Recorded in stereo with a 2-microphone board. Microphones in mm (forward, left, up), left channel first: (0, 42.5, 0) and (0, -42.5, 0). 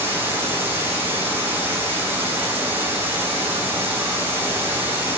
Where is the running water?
25° right (ahead or behind), 6.5 m.